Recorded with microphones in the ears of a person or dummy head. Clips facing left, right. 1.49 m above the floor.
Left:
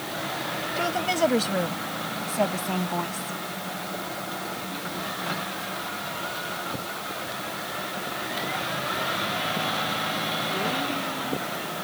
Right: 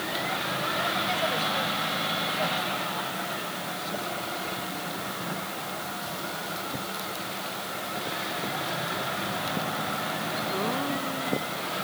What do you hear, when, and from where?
0.8 s a woman speaking: 70° left (ahead or behind)